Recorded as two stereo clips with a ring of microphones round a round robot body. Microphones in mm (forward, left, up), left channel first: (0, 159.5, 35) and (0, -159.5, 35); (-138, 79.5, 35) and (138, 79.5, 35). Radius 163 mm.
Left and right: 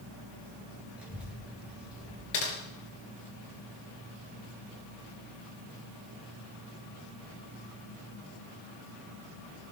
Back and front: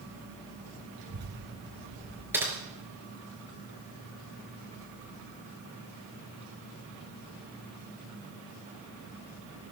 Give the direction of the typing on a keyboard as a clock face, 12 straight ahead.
9 o'clock.